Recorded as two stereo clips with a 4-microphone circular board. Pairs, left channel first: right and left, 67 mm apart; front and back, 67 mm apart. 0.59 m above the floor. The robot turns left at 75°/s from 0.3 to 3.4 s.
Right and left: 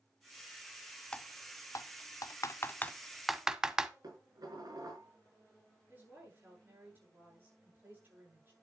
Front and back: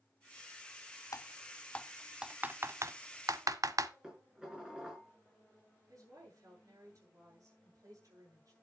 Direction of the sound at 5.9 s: 145° left.